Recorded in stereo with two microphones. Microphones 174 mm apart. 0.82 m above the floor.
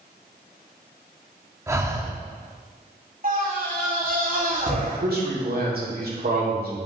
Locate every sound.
1.7 s breathing: 15° right (ahead or behind), 0.8 m
3.2 s a scream: 50° right (ahead or behind), 2 m
4.8 s a man speaking: 60° right (ahead or behind), 2 m